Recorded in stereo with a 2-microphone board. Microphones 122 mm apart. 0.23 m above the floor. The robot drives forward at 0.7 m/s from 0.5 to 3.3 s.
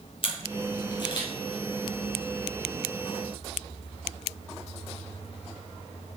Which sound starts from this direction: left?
A camera shutter, at 0.2 s.